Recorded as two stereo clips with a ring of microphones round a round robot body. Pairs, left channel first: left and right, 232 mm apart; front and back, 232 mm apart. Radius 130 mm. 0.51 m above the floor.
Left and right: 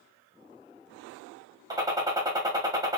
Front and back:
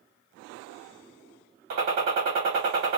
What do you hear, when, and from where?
1.7 s a gunshot: 155° right, 1.1 m